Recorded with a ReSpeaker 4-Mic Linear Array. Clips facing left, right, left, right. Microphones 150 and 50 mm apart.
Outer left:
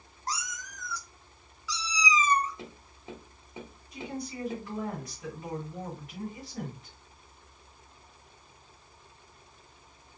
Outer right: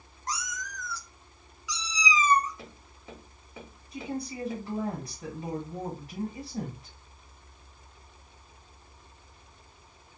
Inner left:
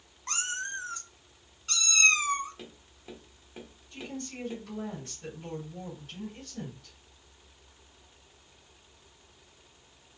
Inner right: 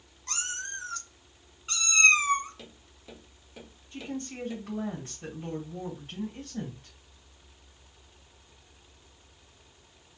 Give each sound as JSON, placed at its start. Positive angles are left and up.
{"t": 0.3, "sound": "a cat meowing", "side_deg": 35, "distance_m": 0.9}
{"t": 2.6, "sound": "tapping", "side_deg": 20, "distance_m": 1.4}
{"t": 3.9, "sound": "a woman speaking", "side_deg": -25, "distance_m": 1.6}